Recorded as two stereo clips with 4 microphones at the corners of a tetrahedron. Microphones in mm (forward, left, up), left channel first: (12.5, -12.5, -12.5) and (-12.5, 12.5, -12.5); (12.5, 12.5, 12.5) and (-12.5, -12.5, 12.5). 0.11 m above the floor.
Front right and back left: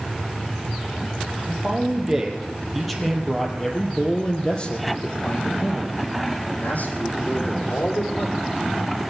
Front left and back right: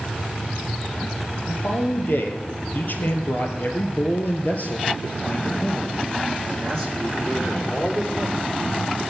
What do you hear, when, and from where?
1.5 s a man speaking: 65° left, 3 m; by 8.5 s 35° right, 4 m